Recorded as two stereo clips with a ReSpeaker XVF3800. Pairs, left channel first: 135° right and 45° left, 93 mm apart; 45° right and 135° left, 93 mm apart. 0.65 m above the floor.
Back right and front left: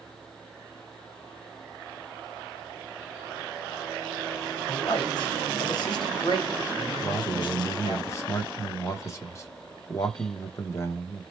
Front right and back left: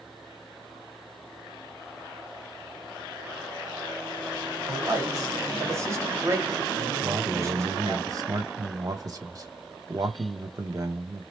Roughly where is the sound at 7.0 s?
Behind.